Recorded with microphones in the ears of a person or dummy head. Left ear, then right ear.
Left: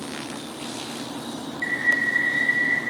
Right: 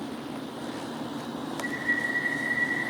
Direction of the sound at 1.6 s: 65° left (ahead or behind).